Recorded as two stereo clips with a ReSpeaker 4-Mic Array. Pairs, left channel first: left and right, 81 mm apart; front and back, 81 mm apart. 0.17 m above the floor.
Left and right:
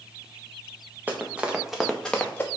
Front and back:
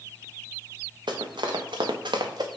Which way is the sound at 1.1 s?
160° right.